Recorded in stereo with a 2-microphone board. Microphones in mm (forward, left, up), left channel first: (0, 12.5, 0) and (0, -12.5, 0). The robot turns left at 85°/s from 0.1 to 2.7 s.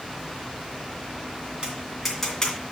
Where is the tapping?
40° right (ahead or behind), 2.5 m; by 2.6 s 40° left (ahead or behind), 2.5 m.